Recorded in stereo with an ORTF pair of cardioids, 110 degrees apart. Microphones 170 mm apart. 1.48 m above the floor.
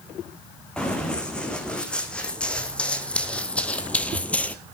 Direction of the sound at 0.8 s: 5° left.